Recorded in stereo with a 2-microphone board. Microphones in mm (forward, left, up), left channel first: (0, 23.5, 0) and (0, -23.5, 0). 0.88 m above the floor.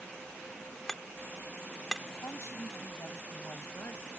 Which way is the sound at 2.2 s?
75° left (ahead or behind).